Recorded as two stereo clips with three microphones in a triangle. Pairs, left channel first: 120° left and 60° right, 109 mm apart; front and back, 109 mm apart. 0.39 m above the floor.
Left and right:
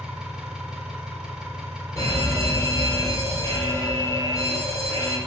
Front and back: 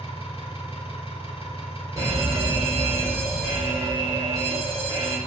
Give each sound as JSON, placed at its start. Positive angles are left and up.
{"t": 0.0, "sound": "an engine running", "azimuth_deg": 25, "distance_m": 1.8}
{"t": 2.0, "sound": "a fire alarm", "azimuth_deg": 150, "distance_m": 2.5}